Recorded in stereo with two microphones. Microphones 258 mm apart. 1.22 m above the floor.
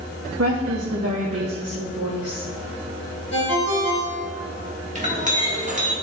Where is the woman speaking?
70° right (ahead or behind), 0.6 m; by 2.5 s 65° right (ahead or behind), 2 m.